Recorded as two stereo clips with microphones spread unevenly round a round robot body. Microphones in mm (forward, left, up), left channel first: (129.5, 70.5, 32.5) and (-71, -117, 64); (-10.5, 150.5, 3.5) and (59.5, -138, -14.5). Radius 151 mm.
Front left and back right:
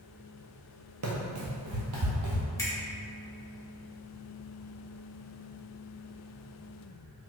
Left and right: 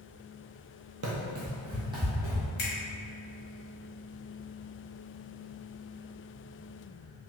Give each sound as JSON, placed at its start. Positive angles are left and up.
{"t": 1.0, "sound": "running footsteps", "azimuth_deg": -120, "distance_m": 0.7}
{"t": 2.6, "sound": "a finger snap", "azimuth_deg": 100, "distance_m": 0.8}